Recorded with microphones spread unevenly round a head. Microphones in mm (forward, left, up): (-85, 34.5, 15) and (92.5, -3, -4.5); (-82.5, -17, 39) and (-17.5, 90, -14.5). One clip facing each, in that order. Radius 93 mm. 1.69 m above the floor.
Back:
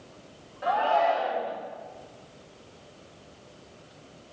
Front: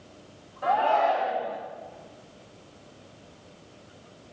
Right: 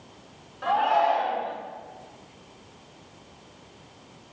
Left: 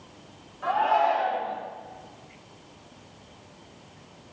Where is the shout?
110° right, 2.5 m.